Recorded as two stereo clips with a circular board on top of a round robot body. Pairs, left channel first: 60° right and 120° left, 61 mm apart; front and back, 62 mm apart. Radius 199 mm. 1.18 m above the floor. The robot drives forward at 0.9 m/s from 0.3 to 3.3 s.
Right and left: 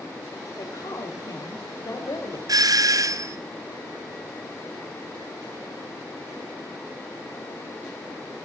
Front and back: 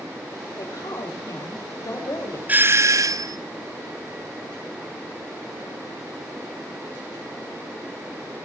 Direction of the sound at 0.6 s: 25° right.